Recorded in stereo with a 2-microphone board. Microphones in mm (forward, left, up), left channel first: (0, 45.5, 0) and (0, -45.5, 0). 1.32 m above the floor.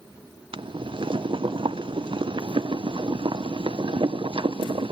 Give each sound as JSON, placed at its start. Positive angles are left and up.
{"t": 0.5, "sound": "boiling", "side_deg": -65, "distance_m": 0.6}